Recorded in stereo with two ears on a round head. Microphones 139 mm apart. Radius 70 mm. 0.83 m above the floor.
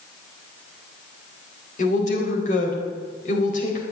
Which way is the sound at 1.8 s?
55° left (ahead or behind).